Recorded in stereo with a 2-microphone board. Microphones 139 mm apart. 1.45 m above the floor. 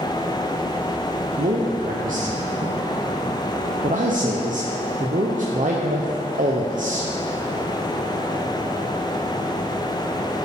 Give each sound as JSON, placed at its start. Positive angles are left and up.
{"t": 1.4, "sound": "a man speaking", "side_deg": -70, "distance_m": 0.7}